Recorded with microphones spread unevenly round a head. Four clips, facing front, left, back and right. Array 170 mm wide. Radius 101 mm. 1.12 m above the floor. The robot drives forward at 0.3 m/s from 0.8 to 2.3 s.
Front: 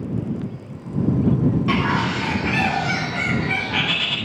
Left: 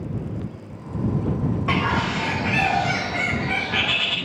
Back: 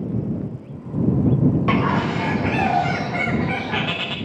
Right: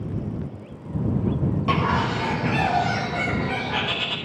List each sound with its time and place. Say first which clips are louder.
1.7 s a bird: right 1 dB, back 1 dB; 170° right, 1.0 m